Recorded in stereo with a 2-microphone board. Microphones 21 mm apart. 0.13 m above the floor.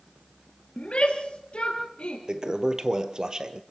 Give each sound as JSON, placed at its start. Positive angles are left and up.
{"t": 0.8, "sound": "a shout", "side_deg": 60, "distance_m": 2.5}
{"t": 2.3, "sound": "a toilet flushing", "side_deg": -40, "distance_m": 1.3}